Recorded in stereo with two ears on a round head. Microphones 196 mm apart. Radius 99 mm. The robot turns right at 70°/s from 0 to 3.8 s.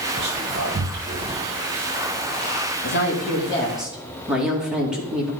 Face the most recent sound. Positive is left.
turn(degrees=-175)